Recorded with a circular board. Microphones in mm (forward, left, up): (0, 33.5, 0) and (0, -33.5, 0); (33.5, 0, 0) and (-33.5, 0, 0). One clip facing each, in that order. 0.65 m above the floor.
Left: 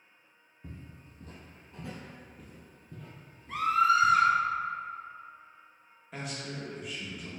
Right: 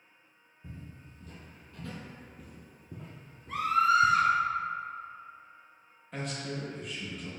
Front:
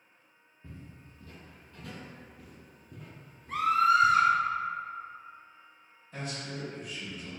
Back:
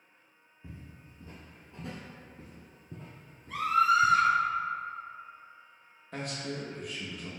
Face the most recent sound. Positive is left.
turn(degrees=175)